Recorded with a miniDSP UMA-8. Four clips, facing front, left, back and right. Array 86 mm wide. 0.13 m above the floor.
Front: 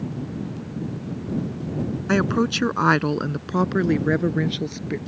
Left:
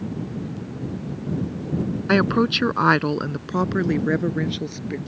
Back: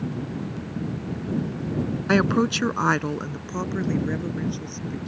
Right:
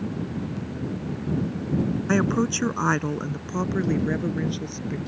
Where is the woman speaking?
110° left; by 5.0 s 20° left.